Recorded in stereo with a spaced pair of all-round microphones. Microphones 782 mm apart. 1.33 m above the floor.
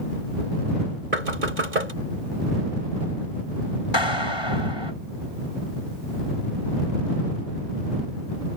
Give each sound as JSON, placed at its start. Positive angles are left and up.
{"t": 1.1, "sound": "knocking", "side_deg": -75}
{"t": 3.9, "sound": "a clap", "side_deg": 35}